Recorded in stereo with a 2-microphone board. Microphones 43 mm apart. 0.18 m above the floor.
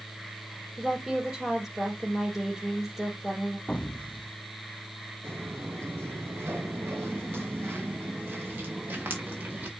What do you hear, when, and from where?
0.8 s a woman speaking: 10° right (ahead or behind), 4.5 m
3.7 s an explosion: 30° left (ahead or behind), 0.7 m
5.2 s footsteps: 80° right, 5.5 m; by 9.7 s 50° right (ahead or behind), 5 m